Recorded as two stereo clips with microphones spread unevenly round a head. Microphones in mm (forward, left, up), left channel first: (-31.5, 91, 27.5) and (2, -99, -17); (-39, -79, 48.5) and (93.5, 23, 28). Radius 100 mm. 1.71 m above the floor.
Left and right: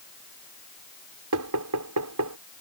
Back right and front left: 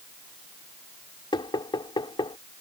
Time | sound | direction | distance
1.3 | knocking | 80° right | ?